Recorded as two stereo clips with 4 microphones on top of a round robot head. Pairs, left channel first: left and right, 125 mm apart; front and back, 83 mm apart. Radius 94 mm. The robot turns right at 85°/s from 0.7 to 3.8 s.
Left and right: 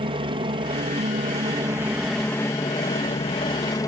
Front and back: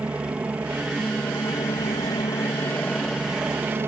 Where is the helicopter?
110° right; by 3.9 s 135° left.